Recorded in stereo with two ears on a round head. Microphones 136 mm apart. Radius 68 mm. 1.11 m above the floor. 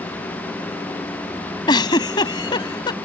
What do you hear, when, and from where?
1.7 s a giggle: 30° left (ahead or behind)